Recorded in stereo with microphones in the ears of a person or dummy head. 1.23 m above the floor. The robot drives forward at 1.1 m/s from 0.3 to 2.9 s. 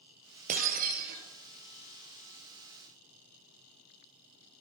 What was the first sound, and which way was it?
Breaking glass, 45° right (ahead or behind).